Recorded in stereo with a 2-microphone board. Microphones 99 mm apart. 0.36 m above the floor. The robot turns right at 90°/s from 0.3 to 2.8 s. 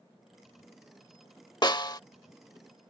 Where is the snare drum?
85° left; by 2.0 s 115° left.